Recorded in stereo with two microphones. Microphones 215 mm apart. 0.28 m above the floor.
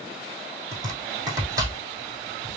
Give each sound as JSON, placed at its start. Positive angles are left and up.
{"t": 0.7, "sound": "chopping", "side_deg": -15, "distance_m": 2.0}